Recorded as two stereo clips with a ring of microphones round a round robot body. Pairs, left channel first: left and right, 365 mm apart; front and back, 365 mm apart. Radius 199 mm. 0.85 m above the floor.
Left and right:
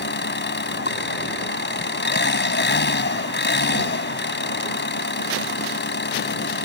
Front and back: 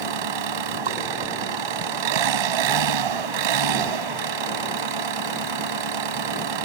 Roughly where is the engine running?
Behind left.